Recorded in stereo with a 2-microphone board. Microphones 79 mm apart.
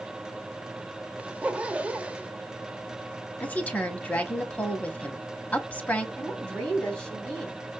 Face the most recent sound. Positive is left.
turn(degrees=10)  # may be behind; listen again after turning